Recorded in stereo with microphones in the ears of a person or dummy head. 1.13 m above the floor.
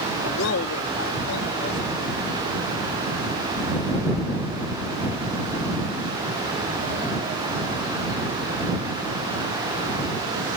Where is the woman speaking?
70° left (ahead or behind).